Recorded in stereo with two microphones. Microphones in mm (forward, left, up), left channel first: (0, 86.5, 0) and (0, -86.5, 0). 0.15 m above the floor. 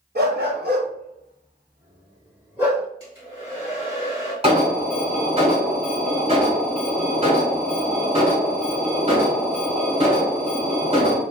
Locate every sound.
0.1 s a dog barking: 70° right (ahead or behind), 0.9 m; by 2.9 s 5° right (ahead or behind), 1.4 m
3.0 s a hair dryer: 30° left (ahead or behind), 1.8 m
4.4 s an alarm: 35° right (ahead or behind), 1.4 m